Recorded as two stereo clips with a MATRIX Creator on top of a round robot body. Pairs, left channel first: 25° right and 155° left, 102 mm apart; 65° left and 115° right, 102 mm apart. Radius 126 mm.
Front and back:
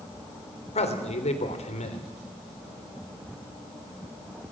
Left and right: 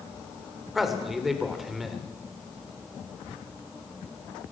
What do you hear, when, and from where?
0.8 s a man speaking: 25° right, 3 m